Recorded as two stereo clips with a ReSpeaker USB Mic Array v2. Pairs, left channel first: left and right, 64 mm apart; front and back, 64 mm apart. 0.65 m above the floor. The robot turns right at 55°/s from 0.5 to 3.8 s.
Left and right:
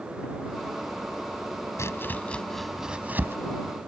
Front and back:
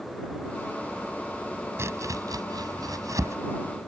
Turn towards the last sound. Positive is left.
turn(degrees=-115)